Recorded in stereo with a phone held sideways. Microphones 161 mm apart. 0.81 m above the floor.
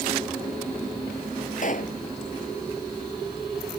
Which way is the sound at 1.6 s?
55° left (ahead or behind).